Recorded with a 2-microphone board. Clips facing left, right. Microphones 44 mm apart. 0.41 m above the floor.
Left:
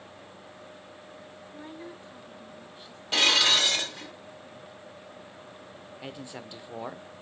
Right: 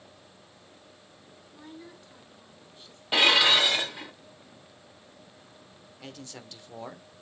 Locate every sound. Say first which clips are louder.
1.5 s a woman speaking: left 3 dB; 25° left (ahead or behind), 3 m; by 3.0 s 10° left (ahead or behind), 3.5 m
3.1 s dishes clattering: right 2 dB; 15° right (ahead or behind), 0.8 m
6.0 s a man speaking: left 3 dB; 15° left (ahead or behind), 0.8 m